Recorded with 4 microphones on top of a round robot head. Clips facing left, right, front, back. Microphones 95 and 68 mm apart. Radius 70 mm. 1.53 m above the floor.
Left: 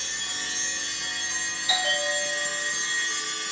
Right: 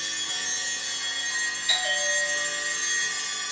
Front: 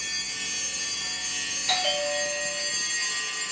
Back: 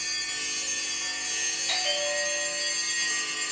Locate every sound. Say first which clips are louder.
1.7 s a bell: left 3 dB, front 4 dB; 20° left, 0.7 m